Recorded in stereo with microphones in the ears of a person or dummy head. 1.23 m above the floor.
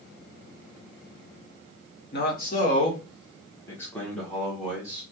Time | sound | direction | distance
2.1 | a man speaking | 50° left (ahead or behind) | 0.9 m